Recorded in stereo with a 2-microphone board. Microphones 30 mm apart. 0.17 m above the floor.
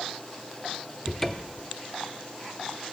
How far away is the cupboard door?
About 1.0 m.